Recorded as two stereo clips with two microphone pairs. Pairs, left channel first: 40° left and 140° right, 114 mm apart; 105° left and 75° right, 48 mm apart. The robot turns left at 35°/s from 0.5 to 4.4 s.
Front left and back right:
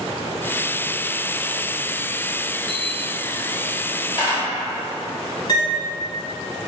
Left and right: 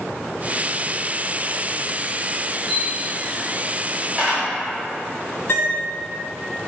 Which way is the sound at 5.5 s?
85° left.